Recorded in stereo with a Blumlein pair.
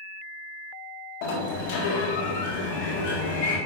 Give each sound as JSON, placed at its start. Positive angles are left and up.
{"t": 1.2, "sound": "a sliding door", "azimuth_deg": 45, "distance_m": 1.8}